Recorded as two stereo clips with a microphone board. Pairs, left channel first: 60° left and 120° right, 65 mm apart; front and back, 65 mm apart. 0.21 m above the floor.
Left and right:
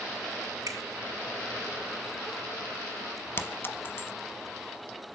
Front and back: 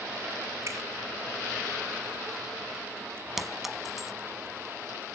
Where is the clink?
95° left, 1.2 m.